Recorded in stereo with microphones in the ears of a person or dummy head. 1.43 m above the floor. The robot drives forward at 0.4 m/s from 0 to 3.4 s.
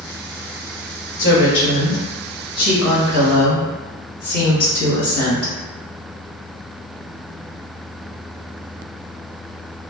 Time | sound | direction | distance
1.2 | a woman speaking | 70° left (ahead or behind) | 1.0 m